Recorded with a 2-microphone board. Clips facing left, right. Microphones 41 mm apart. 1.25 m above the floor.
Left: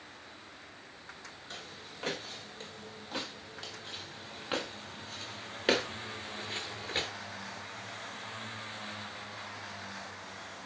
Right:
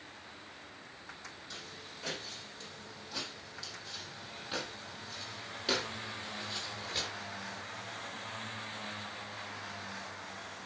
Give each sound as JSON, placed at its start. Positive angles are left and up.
{"t": 1.5, "sound": "footsteps", "side_deg": 45, "distance_m": 4.0}